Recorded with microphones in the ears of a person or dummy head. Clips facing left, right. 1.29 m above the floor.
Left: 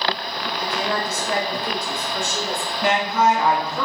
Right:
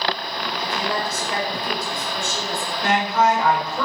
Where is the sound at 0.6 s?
85° left, 1.4 m; by 2.7 s 40° left (ahead or behind), 1.6 m.